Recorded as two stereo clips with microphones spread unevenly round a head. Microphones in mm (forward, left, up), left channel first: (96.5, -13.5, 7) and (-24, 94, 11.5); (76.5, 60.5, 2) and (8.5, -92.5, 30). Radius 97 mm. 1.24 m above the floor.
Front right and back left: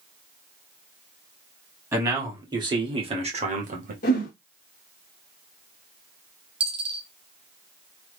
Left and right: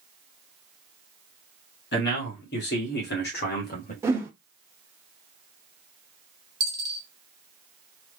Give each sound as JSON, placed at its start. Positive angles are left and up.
{"t": 1.9, "sound": "a man speaking", "azimuth_deg": 65, "distance_m": 2.0}
{"t": 4.0, "sound": "a whoosh", "azimuth_deg": -50, "distance_m": 1.1}
{"t": 6.6, "sound": "a dropped coin", "azimuth_deg": -170, "distance_m": 0.8}